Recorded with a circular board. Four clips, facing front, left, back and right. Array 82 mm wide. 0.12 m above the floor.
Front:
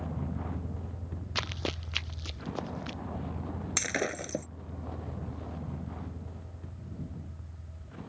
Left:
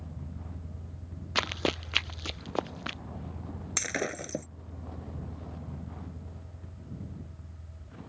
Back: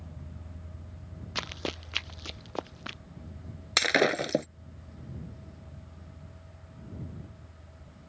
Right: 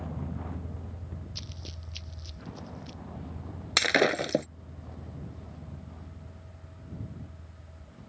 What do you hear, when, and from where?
0.0 s a vehicle: 40° right; by 8.1 s 25° left
1.4 s running footsteps: 85° left; by 3.0 s 110° left
3.8 s breaking glass: 130° right